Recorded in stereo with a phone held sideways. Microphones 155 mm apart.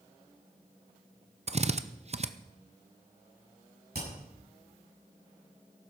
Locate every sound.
1.5 s a drill: 45° right (ahead or behind), 0.7 m
3.9 s hammering: 85° right, 8 m